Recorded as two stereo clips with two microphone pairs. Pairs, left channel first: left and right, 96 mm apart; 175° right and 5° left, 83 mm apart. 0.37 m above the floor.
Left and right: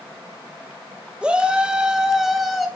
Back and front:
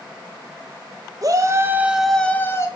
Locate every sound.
1.2 s a shout: 15° right, 1.5 m; by 2.7 s straight behind, 1.3 m